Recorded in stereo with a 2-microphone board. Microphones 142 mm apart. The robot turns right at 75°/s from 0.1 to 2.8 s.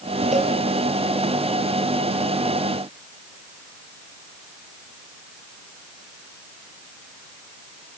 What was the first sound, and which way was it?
A cowbell, 60° right (ahead or behind).